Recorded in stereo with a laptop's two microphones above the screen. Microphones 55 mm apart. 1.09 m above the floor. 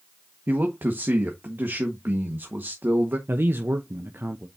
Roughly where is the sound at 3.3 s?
Right.